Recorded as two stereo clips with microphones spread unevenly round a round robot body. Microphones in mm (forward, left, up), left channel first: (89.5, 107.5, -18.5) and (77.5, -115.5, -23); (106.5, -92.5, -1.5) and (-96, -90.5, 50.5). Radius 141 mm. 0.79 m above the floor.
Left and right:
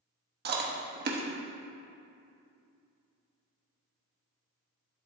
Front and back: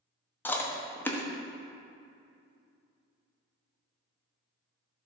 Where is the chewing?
65° right, 1.3 m.